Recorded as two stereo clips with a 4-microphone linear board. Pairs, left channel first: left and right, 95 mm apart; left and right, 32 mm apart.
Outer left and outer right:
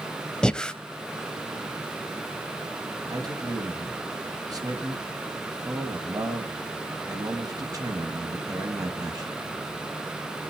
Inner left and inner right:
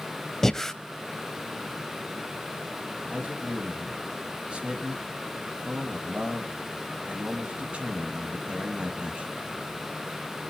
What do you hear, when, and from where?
0.4 s breathing: 10° left (ahead or behind), 0.7 m
3.1 s a man speaking: 40° right (ahead or behind), 2 m